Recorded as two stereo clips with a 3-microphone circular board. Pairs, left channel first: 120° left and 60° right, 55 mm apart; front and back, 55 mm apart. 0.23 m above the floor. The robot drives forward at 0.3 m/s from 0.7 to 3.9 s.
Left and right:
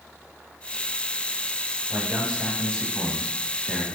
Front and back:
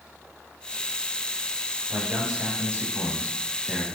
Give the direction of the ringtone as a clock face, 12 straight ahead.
I don't hear a ringtone.